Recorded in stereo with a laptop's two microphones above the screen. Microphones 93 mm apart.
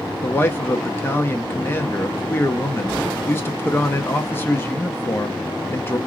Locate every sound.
0.2 s a man speaking: 25° left (ahead or behind), 0.6 m